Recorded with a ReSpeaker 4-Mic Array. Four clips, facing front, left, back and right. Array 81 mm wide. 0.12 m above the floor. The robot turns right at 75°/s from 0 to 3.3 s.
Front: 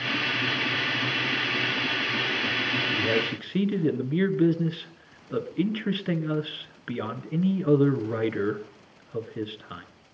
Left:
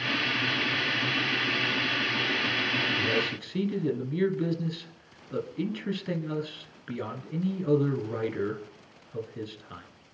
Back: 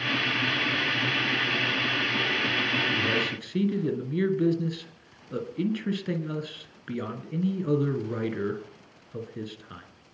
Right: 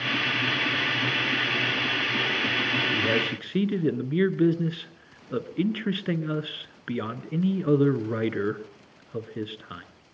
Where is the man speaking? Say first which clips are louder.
Right 3 dB, front 2 dB; 90° right, 1.7 m; by 9.8 s 60° right, 1.7 m.